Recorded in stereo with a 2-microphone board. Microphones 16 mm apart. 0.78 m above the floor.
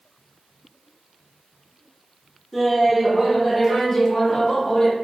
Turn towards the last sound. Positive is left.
turn(degrees=35)  # may be behind; listen again after turning